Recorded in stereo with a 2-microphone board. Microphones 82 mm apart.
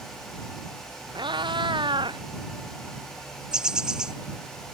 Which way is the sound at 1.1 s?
70° right (ahead or behind).